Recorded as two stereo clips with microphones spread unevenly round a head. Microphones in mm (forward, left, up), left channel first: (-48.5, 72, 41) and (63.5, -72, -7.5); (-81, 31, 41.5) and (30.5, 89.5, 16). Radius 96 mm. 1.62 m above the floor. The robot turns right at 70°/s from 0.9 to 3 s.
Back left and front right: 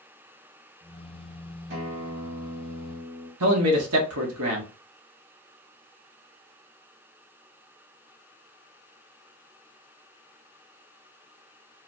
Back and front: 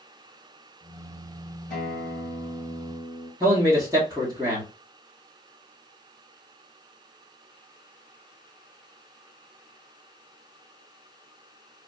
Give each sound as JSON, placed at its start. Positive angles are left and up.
{"t": 1.7, "sound": "a guitar", "azimuth_deg": -105, "distance_m": 2.5}
{"t": 3.4, "sound": "a man speaking", "azimuth_deg": -50, "distance_m": 1.0}